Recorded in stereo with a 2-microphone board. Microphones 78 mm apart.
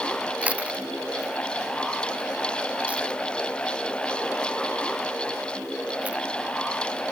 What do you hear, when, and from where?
0.4 s chewing: 15° right (ahead or behind)